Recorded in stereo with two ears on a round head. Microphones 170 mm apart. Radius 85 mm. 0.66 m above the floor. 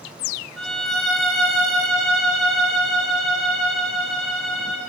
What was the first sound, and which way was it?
A violin, centre (ahead or behind).